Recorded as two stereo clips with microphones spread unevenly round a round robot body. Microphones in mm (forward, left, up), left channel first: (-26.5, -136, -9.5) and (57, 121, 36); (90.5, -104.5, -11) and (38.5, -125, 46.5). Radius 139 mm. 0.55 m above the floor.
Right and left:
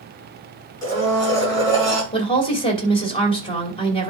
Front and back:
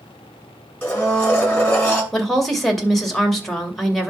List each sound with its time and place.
0.8 s a blender: 30° right, 6.5 m
2.1 s a woman speaking: 40° right, 2.5 m